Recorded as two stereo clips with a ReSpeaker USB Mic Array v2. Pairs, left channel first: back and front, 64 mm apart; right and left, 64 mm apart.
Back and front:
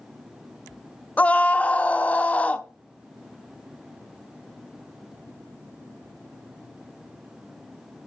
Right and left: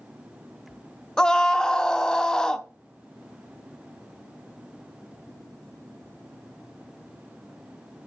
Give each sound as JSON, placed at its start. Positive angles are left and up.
{"t": 1.2, "sound": "a scream", "azimuth_deg": -155, "distance_m": 0.8}